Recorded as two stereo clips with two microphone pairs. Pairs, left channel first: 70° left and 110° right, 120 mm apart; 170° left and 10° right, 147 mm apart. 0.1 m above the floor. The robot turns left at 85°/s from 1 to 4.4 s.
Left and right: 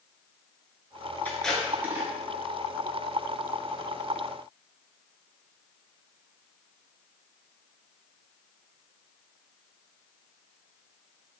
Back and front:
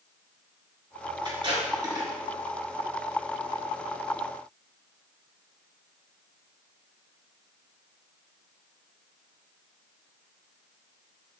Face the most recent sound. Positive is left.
turn(degrees=100)